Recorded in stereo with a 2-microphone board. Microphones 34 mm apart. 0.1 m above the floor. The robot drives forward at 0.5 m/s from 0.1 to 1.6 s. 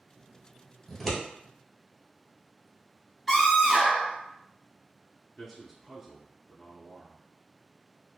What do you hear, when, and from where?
0.9 s scissors: 5° right (ahead or behind), 1.2 m
3.3 s a scream: centre (ahead or behind), 1.2 m
5.4 s a man speaking: 5° right (ahead or behind), 1.2 m